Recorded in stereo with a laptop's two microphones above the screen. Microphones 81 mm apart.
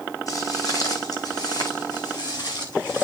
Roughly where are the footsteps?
Left.